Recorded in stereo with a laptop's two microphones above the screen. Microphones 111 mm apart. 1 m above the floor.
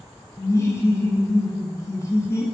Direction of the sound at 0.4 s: 25° left (ahead or behind).